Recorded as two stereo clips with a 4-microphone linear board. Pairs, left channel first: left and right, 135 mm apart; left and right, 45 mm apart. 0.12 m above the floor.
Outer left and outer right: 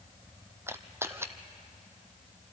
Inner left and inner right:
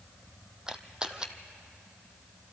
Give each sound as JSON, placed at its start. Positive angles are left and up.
{"t": 0.7, "sound": "a camera shutter", "side_deg": -20, "distance_m": 1.0}